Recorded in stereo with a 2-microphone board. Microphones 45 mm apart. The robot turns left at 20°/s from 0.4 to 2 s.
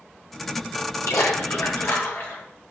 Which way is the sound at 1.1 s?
70° left (ahead or behind).